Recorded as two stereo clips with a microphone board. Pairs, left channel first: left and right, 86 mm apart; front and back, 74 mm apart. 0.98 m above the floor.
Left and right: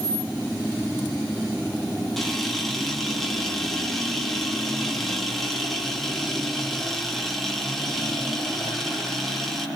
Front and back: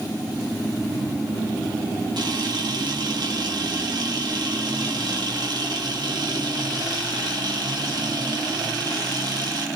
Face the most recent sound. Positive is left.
turn(degrees=175)